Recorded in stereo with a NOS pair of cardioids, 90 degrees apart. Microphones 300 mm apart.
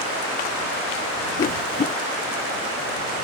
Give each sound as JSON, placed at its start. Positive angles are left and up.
{"t": 1.4, "sound": "a whoosh", "azimuth_deg": 30}